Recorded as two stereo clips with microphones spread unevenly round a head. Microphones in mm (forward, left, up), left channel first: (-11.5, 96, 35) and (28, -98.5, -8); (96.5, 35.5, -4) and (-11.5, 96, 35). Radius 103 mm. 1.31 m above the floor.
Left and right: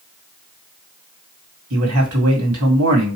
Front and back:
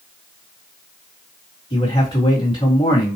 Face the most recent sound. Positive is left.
turn(degrees=-90)